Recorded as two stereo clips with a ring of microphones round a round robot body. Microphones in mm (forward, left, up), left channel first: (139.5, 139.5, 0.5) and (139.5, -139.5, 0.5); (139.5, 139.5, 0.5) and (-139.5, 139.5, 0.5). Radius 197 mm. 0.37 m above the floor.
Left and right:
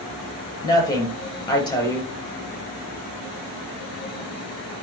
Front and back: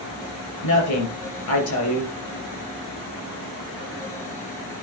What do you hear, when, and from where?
0.6 s a woman speaking: 15° left, 5.5 m